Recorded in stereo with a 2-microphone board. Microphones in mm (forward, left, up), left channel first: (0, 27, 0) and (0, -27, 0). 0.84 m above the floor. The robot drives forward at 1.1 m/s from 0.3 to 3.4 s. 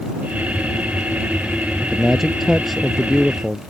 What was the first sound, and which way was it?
A man speaking, centre (ahead or behind).